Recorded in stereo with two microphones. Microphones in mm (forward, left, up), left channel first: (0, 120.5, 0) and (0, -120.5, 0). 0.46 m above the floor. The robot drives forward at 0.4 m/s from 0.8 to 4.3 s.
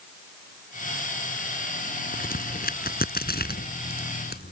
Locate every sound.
2.1 s a crack: 35° left (ahead or behind); by 4.5 s 40° left (ahead or behind)